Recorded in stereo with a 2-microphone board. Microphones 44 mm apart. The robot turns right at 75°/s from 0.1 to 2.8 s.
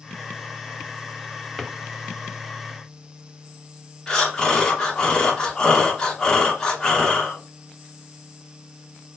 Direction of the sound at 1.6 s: Centre (ahead or behind).